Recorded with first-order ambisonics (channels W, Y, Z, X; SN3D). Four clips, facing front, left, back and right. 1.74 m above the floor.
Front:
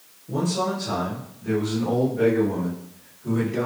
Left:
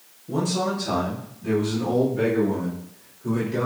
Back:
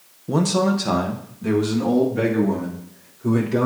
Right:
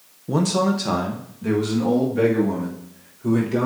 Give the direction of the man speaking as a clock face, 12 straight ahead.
5 o'clock.